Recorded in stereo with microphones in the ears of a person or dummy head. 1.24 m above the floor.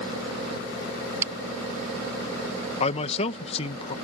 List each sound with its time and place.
1.2 s breaking glass: 15° right (ahead or behind)
2.8 s a man speaking: 35° left (ahead or behind)